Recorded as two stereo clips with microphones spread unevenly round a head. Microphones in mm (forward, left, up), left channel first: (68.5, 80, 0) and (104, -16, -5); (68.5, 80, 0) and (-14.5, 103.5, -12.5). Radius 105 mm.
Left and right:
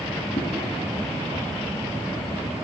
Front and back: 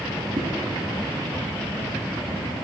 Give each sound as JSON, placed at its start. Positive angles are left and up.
{"t": 0.4, "sound": "a whoosh", "azimuth_deg": 125, "distance_m": 4.5}